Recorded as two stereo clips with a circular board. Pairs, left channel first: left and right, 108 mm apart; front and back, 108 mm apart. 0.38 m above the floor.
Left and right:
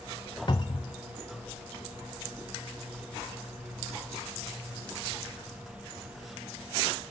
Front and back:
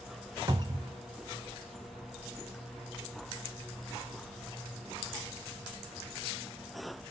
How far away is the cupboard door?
About 0.8 m.